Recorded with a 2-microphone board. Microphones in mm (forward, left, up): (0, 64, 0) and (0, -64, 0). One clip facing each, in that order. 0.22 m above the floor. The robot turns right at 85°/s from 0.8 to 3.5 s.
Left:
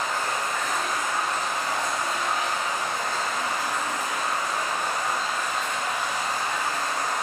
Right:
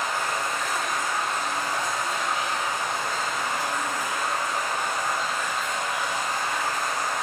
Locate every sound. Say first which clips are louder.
0.0 s running water: even; 5° right, 1.6 m; by 7.2 s 135° right, 1.6 m